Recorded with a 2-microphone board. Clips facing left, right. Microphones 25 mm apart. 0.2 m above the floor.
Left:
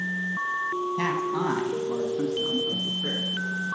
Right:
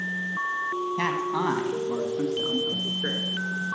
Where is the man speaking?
15° right (ahead or behind), 1.1 m; by 3.2 s 60° right (ahead or behind), 1.8 m.